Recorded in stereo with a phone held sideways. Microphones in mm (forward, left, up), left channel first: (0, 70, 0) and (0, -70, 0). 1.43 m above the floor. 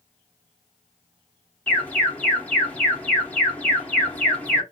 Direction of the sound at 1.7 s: 10° left (ahead or behind).